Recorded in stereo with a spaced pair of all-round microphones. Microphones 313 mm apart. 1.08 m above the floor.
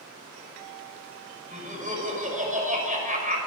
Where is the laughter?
25° right (ahead or behind), 6 m.